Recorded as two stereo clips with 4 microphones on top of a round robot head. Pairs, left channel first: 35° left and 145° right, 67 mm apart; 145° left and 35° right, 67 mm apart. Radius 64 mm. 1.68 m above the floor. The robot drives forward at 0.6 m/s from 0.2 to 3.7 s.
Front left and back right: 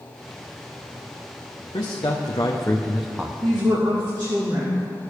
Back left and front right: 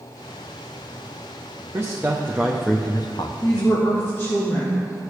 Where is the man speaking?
20° left, 0.8 m; by 3.3 s 145° left, 0.6 m.